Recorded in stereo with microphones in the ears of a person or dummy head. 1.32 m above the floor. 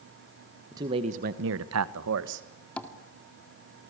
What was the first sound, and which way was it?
A man speaking, 20° right (ahead or behind).